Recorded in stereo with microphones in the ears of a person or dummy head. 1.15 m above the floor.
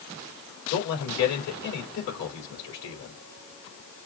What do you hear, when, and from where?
0.7 s a man speaking: 55° left (ahead or behind), 2.5 m